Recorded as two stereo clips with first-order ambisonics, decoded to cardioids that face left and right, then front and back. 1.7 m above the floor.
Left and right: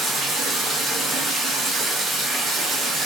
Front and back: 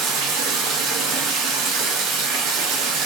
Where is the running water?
150° right, 1.1 m.